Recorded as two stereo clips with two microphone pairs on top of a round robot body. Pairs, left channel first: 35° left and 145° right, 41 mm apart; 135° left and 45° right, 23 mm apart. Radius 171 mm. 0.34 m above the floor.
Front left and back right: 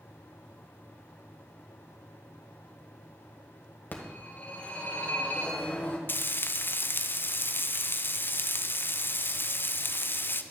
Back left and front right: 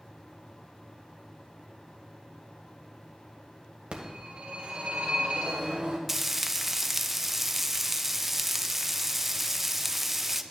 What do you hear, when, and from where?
3.9 s a phone ringing: 10° right, 2 m
6.1 s frying: 35° left, 0.7 m